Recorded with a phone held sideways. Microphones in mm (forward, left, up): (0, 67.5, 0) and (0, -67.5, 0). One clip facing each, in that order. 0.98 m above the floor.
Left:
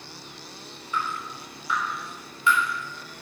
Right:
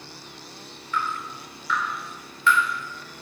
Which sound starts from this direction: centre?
Dripping, at 0.9 s.